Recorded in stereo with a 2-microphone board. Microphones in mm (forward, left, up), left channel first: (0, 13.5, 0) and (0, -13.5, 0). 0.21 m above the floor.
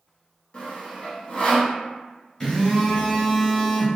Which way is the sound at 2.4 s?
25° left (ahead or behind).